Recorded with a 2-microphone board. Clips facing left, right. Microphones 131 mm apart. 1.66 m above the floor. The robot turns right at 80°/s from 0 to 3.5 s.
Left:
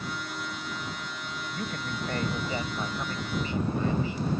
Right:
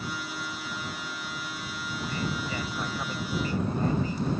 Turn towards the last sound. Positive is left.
turn(degrees=-135)